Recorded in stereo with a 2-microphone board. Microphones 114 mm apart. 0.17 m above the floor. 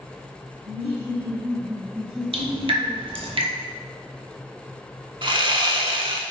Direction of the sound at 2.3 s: 60° right (ahead or behind).